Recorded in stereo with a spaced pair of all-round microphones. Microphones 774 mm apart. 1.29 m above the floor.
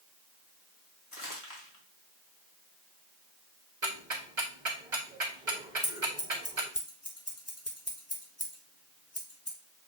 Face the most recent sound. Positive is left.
turn(degrees=20)  # may be behind; listen again after turning